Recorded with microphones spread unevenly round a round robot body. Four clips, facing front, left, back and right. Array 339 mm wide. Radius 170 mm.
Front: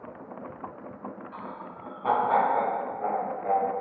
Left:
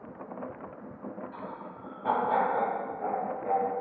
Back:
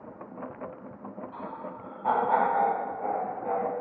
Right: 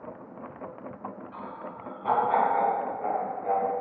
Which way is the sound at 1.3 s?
55° right.